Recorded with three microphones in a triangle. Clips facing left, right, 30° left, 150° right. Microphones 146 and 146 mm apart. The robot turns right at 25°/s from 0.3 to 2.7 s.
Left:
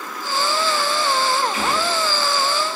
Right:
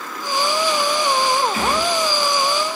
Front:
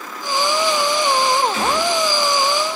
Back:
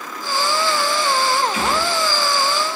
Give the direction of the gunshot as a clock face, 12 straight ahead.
3 o'clock.